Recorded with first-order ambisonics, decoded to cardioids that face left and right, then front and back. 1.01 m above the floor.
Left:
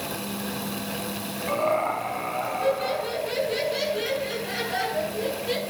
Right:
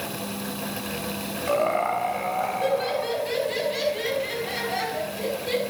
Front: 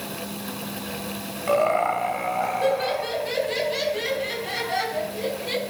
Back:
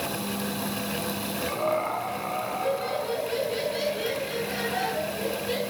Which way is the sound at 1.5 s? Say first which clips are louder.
Right 1 dB, front 7 dB; 25° right.